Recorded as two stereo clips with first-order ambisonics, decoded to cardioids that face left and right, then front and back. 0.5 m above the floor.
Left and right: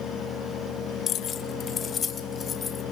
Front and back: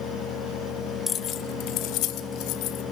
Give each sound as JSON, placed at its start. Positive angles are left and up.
{"t": 1.1, "sound": "keys jangling", "azimuth_deg": 60, "distance_m": 0.5}